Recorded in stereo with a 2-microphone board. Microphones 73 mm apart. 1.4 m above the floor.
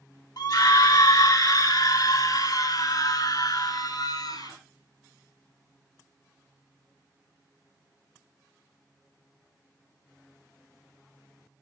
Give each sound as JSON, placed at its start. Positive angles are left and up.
{"t": 0.4, "sound": "a scream", "side_deg": 60, "distance_m": 2.5}